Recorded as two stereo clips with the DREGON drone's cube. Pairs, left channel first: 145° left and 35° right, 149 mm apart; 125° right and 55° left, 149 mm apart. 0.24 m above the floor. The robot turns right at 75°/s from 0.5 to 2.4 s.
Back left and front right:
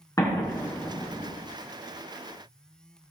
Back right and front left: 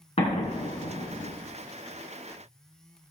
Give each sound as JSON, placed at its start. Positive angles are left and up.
{"t": 0.2, "sound": "an explosion", "azimuth_deg": -150, "distance_m": 2.5}